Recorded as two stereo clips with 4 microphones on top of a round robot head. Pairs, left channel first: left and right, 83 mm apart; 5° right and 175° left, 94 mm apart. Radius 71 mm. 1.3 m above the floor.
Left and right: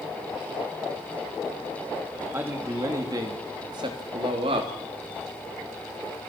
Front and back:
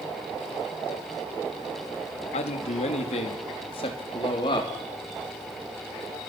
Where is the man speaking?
15° right, 2.5 m; by 4.7 s 55° right, 3 m.